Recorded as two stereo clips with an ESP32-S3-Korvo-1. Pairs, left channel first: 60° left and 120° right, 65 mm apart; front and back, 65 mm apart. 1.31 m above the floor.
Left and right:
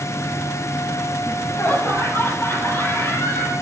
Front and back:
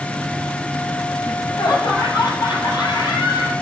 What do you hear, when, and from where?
1.2 s laughter: 10° left, 8 m